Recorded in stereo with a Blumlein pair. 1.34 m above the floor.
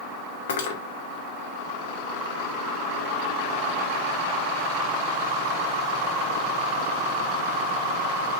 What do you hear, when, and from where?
0.5 s cutlery clinking: 60° left, 1.9 m